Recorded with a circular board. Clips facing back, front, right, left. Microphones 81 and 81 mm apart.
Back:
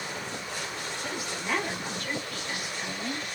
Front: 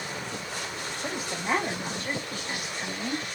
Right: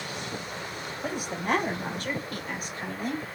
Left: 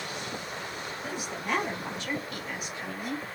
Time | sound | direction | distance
1.0 | a woman speaking | 55° right | 3 m